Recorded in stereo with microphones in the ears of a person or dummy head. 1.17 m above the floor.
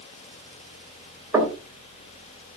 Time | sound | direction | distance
1.3 | knocking | 15° right (ahead or behind) | 3 m